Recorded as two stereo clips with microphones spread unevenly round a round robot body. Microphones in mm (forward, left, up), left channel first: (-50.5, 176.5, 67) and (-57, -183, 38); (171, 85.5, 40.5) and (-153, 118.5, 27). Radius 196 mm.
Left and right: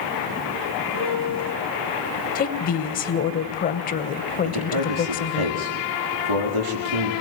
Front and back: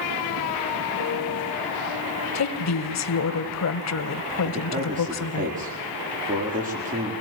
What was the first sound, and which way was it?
A piano, 55° right.